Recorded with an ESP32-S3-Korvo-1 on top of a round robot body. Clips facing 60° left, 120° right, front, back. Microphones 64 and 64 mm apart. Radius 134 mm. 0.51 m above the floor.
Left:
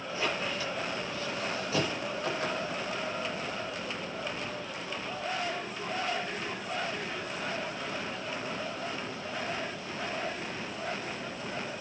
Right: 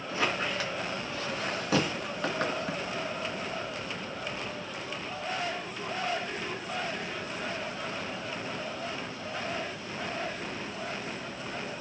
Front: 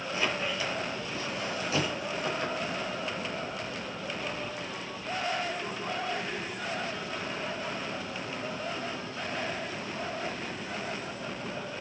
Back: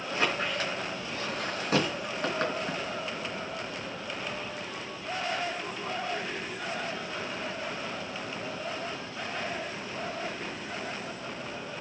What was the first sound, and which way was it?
A squeak, 135° right.